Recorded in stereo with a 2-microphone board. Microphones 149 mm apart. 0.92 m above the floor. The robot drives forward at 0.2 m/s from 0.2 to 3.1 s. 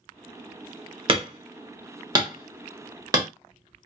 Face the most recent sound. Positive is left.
turn(degrees=-25)  # may be behind; listen again after turning